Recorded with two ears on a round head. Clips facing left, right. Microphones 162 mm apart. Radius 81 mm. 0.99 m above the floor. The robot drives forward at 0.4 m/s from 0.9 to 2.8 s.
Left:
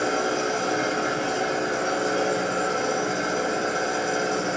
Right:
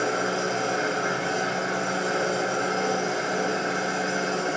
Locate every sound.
0.0 s an engine running: 45° left (ahead or behind), 1.1 m; by 4.6 s 30° left (ahead or behind), 1.8 m